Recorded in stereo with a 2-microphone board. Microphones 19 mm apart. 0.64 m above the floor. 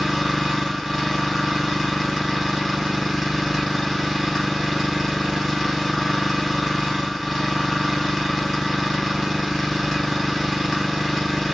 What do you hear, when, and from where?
0.0 s an engine running: 5° right (ahead or behind), 1.3 m